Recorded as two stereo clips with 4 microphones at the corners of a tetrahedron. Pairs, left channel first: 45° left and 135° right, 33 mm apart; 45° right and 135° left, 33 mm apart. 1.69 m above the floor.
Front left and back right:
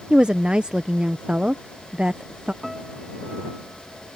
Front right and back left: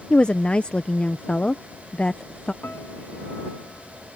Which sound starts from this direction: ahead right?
A piano, at 2.6 s.